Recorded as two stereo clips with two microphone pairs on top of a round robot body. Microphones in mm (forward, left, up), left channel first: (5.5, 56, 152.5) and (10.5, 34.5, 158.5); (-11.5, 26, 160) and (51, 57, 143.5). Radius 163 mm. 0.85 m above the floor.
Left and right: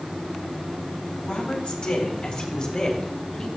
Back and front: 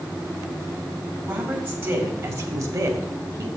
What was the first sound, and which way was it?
A woman speaking, 85° left.